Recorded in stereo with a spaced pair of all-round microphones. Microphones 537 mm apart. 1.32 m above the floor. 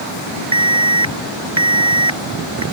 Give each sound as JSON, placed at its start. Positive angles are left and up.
{"t": 0.5, "sound": "an alarm", "side_deg": -55}